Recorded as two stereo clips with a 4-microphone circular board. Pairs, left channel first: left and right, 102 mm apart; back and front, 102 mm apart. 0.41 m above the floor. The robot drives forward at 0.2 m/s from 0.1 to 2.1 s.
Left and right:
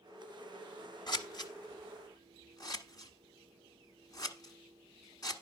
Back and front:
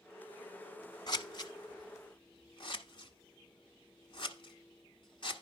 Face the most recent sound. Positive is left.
turn(degrees=140)